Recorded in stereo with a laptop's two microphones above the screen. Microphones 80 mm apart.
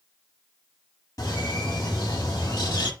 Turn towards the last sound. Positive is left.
turn(degrees=50)  # may be behind; listen again after turning